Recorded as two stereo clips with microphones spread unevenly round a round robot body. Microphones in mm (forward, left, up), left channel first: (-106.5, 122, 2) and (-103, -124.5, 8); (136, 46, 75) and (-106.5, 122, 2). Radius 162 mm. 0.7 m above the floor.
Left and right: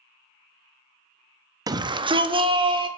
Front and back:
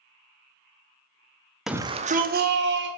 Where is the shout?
150° right, 0.7 m; by 2.9 s 160° right, 1.9 m.